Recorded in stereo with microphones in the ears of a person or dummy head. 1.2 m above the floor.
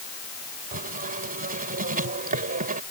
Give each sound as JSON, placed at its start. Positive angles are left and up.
{"t": 0.7, "sound": "writing", "side_deg": -45}